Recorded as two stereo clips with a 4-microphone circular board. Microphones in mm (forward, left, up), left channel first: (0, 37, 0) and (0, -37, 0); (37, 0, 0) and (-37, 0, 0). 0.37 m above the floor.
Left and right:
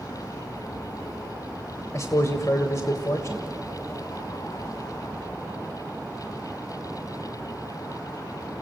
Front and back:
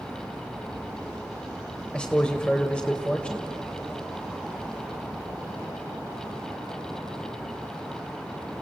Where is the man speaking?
70° left, 1.1 m.